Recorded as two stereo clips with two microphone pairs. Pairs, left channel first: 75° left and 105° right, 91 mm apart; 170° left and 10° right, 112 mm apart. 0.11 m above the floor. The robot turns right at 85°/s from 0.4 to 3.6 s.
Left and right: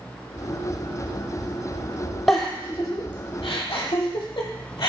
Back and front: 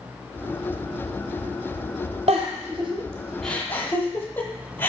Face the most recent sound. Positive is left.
turn(degrees=100)